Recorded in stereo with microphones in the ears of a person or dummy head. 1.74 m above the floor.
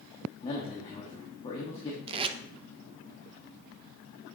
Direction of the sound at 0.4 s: 25° left (ahead or behind).